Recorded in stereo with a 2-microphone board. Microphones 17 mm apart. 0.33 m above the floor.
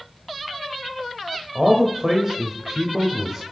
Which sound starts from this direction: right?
A man speaking, at 1.6 s.